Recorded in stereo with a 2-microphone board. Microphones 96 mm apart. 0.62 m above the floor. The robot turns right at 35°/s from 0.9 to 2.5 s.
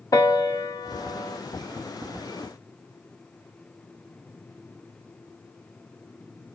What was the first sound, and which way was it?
A piano, 35° left (ahead or behind).